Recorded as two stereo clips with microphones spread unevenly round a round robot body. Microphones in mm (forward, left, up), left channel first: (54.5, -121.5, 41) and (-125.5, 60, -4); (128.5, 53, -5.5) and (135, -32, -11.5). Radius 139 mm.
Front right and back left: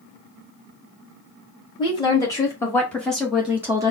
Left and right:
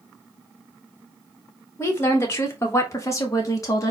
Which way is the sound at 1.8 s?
30° left.